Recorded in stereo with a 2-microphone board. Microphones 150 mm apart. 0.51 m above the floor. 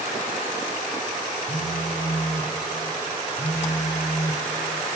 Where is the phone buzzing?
55° left (ahead or behind), 3 m.